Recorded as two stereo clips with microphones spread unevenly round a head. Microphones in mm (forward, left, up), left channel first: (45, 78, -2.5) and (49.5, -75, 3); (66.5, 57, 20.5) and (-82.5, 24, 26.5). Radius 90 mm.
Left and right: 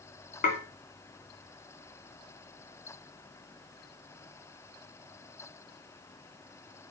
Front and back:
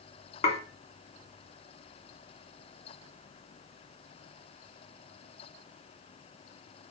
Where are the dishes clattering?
60° left, 2.5 m.